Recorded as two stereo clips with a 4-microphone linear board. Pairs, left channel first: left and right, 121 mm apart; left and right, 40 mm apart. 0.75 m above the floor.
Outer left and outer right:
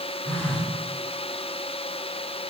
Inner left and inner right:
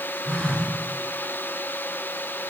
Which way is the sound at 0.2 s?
20° left (ahead or behind).